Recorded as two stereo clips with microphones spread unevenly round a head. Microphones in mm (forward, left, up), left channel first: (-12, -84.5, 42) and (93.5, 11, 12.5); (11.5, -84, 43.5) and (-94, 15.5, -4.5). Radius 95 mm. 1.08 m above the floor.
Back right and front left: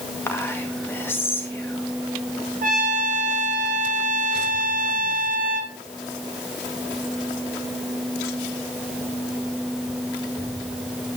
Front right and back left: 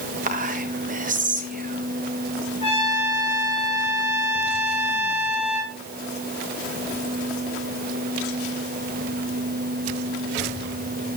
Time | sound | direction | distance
0.3 | whispering | 140° left | 1.8 m
2.6 | a trumpet | 20° left | 2 m